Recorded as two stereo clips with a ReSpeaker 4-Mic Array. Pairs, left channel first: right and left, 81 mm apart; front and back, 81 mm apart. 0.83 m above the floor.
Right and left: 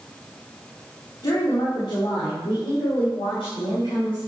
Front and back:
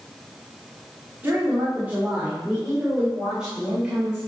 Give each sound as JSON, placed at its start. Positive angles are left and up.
{"t": 1.2, "sound": "a woman speaking", "azimuth_deg": -115, "distance_m": 2.5}